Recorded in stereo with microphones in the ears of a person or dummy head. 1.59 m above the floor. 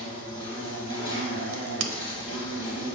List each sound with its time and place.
0.0 s an insect: 20° left (ahead or behind), 3 m
1.5 s a crack: 60° right (ahead or behind), 0.8 m